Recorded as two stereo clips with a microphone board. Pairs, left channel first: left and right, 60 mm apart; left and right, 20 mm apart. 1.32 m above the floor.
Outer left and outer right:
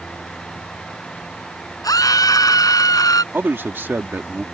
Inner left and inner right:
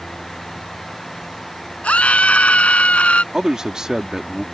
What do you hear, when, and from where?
1.8 s a scream: 85° left; by 3.2 s 90° left
3.3 s a man speaking: 40° right (ahead or behind)